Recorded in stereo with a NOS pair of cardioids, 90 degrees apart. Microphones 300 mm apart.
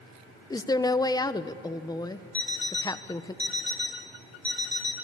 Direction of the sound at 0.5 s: 10° left.